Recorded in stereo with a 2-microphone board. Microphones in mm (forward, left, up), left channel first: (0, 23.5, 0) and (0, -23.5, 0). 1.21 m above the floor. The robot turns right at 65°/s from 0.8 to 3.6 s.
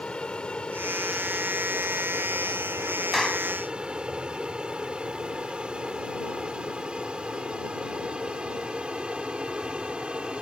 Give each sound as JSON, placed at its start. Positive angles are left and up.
{"t": 0.0, "sound": "an aircraft", "side_deg": 20}
{"t": 3.1, "sound": "a clap", "side_deg": 0}